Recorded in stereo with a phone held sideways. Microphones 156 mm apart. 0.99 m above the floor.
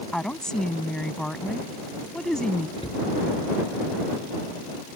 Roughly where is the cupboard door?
Left.